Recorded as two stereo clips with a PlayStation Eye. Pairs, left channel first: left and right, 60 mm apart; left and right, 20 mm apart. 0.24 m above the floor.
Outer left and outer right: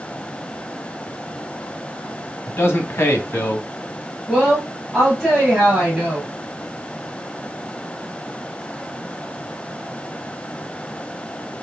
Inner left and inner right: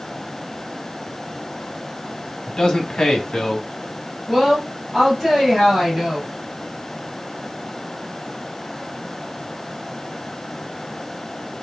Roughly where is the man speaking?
Left.